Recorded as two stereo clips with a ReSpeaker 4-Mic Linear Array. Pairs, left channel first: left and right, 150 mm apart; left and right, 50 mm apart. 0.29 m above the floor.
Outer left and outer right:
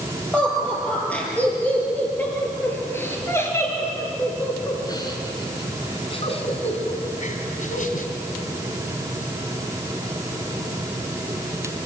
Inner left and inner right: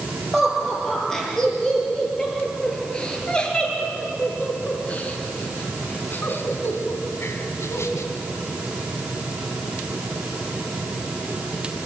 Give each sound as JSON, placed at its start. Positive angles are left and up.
{"t": 0.3, "sound": "laughter", "side_deg": 5, "distance_m": 8.0}